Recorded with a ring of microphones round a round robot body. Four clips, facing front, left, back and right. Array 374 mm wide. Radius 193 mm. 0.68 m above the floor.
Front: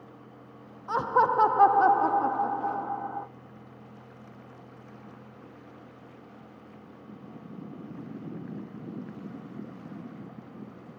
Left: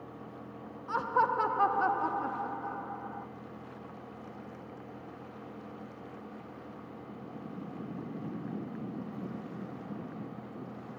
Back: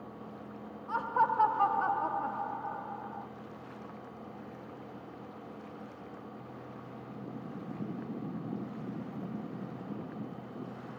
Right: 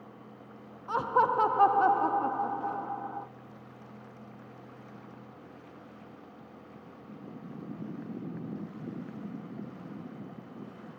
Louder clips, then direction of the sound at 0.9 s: Right 2 dB, front 5 dB; 25° right.